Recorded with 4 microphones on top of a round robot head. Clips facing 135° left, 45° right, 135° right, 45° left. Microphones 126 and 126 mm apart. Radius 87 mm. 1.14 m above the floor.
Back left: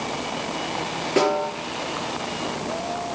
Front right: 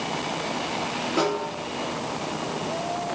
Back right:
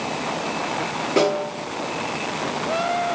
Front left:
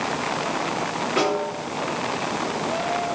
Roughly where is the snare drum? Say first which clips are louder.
Back left 5 dB, back right 4 dB; behind.